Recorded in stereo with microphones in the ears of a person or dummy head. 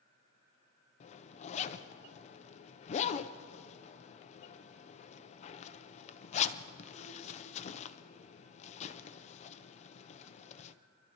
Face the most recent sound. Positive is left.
turn(degrees=45)  # may be behind; listen again after turning